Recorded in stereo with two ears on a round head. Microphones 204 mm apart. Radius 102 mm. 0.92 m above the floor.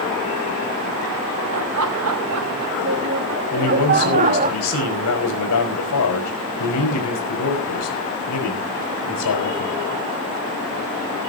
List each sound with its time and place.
1.5 s laughter: 70° right (ahead or behind), 1.5 m; by 4.5 s 35° right (ahead or behind), 1.5 m
3.5 s a man speaking: 85° left, 5 m